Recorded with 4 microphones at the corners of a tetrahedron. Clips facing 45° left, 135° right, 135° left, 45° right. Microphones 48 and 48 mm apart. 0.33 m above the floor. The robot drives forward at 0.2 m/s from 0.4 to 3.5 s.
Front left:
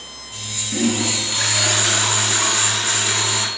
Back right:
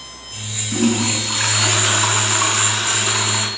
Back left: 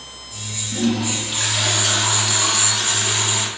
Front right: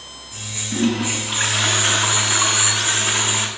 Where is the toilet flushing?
95° right, 2.5 m; by 3.5 s 105° right, 3 m.